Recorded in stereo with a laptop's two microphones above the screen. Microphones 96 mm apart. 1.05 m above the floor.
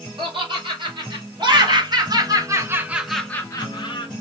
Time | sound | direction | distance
0.2 | laughter | 55° right (ahead or behind) | 2 m